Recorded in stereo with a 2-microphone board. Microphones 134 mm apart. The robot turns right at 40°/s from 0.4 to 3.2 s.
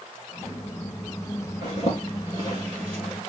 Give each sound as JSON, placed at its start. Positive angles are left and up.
{"t": 1.6, "sound": "a zipper", "side_deg": 55, "distance_m": 3.5}